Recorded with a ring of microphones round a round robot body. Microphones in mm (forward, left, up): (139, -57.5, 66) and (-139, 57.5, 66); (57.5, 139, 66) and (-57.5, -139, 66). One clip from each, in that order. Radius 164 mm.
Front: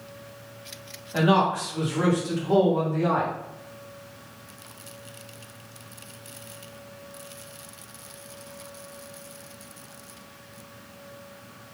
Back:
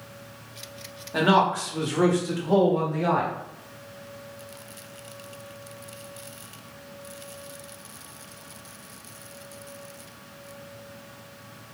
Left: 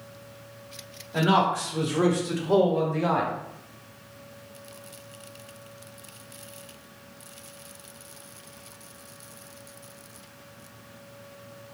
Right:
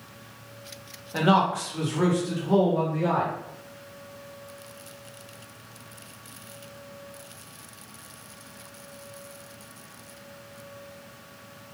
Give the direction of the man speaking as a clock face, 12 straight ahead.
5 o'clock.